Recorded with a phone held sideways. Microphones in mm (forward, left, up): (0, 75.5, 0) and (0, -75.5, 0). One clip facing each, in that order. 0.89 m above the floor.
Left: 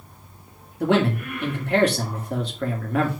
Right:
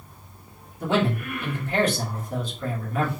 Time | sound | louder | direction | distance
0.8 | a man speaking | left 3 dB | 70° left (ahead or behind) | 2 m